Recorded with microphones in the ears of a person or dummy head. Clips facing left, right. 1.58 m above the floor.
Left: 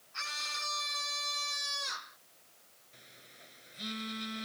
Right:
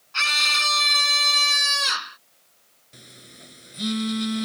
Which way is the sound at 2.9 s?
65° right (ahead or behind).